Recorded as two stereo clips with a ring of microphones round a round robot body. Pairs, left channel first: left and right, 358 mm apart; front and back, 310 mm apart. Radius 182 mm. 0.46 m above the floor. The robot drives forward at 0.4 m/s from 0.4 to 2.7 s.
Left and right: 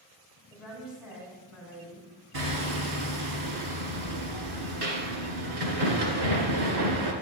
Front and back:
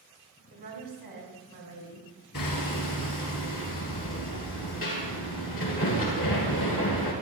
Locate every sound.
0.5 s a woman speaking: 175° right, 5 m
2.3 s hammering: 65° right, 2 m